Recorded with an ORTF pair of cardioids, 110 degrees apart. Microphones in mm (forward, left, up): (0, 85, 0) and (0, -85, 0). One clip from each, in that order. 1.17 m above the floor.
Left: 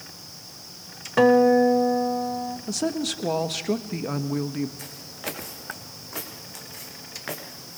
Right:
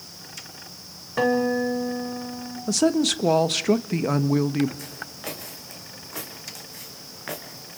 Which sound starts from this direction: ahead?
Footsteps, at 4.8 s.